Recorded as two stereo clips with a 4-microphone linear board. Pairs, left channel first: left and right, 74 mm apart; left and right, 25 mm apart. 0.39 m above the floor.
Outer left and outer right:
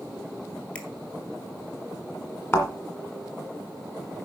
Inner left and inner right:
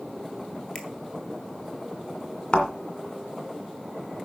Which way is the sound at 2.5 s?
35° left (ahead or behind).